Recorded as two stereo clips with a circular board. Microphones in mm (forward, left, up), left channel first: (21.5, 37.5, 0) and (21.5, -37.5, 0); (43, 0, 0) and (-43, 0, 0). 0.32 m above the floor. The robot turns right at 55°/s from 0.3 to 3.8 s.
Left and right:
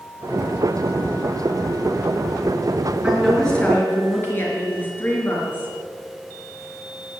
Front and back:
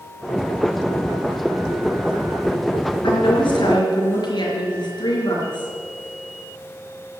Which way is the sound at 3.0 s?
15° right.